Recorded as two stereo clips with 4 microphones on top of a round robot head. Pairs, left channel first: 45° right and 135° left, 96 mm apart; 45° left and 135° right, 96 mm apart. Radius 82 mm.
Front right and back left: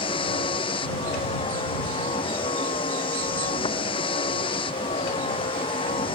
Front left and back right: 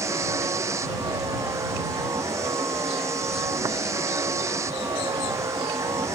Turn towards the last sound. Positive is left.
turn(degrees=-75)